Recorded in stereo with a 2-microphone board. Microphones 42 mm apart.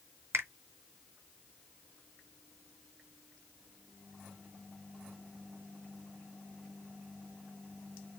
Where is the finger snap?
70° right (ahead or behind), 1.4 m.